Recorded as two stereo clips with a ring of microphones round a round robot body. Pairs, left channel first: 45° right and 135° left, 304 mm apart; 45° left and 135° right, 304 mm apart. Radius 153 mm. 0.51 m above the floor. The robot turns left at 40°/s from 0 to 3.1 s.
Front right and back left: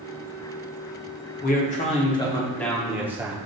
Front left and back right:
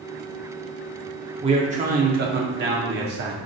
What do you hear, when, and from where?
1.4 s a man speaking: 80° right, 0.7 m; by 3.4 s 145° right, 0.7 m